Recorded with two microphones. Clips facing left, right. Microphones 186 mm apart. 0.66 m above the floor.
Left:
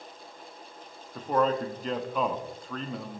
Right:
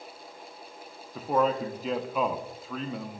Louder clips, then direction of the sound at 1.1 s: Even; 5° right (ahead or behind).